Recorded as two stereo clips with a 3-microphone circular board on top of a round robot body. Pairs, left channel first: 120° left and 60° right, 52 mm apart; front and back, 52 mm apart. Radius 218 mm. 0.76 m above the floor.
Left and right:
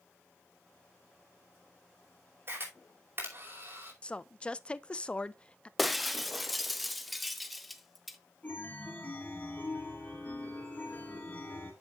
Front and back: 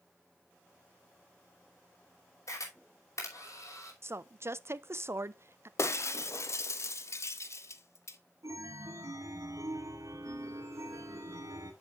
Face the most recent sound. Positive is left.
turn(degrees=180)